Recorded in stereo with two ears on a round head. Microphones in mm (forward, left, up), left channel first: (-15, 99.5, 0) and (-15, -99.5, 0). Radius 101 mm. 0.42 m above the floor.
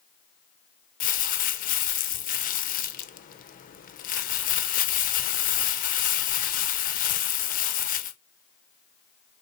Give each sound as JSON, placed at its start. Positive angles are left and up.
{"t": 1.0, "sound": "crumpling", "side_deg": 40, "distance_m": 0.8}